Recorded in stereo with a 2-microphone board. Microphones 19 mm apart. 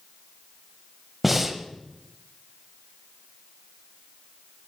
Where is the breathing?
5° right (ahead or behind), 0.6 m.